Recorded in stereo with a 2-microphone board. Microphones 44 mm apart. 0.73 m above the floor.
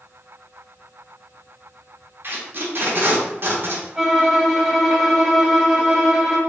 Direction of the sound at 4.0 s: 5° right (ahead or behind).